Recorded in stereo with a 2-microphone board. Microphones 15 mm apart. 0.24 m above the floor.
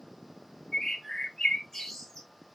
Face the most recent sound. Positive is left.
turn(degrees=30)  # may be behind; listen again after turning